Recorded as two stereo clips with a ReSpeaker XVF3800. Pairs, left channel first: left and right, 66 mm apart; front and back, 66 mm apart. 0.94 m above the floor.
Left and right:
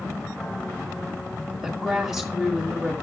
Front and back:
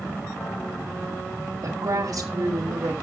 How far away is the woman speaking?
About 1.5 m.